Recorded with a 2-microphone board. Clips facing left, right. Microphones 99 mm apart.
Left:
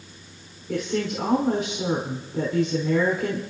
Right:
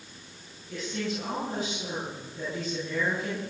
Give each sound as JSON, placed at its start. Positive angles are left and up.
{"t": 0.7, "sound": "a woman speaking", "side_deg": 80, "distance_m": 4.5}